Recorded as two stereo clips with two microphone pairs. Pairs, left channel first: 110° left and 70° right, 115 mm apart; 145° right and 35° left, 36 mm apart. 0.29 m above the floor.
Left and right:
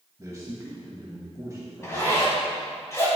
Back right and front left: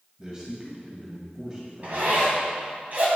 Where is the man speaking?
25° right, 1.5 m.